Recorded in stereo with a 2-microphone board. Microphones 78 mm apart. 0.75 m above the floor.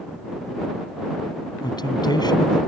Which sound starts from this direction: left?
A man speaking, at 1.6 s.